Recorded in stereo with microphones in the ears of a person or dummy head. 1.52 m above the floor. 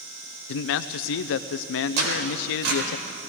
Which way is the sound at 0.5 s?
65° left (ahead or behind).